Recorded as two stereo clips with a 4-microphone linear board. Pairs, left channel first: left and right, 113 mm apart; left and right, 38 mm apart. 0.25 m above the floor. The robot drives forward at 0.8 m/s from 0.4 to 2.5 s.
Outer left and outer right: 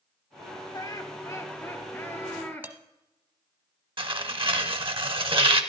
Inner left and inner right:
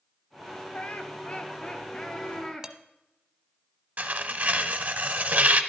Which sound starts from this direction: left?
Laughter, at 0.7 s.